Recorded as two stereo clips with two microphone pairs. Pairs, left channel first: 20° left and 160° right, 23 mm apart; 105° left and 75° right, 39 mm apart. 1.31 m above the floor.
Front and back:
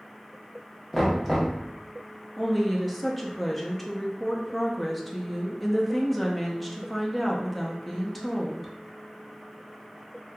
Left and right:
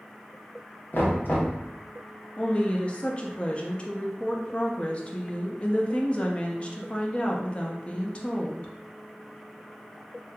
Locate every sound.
0.9 s knocking: 115° left, 0.9 m
2.4 s a woman speaking: 110° left, 0.5 m